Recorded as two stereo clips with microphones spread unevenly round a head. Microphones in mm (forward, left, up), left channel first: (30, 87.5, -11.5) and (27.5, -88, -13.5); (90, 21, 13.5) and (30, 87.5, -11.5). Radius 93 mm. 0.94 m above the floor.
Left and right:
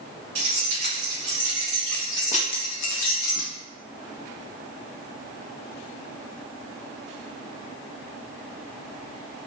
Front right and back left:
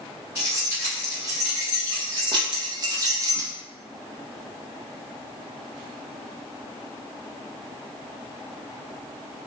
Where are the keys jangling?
150° right, 1.5 m; by 3.5 s 85° left, 1.0 m.